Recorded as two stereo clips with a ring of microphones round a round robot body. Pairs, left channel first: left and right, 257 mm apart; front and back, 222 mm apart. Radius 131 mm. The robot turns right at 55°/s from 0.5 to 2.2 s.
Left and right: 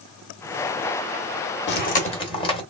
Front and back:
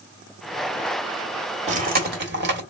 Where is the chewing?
125° left, 1.7 m; by 2.6 s 155° left, 1.7 m.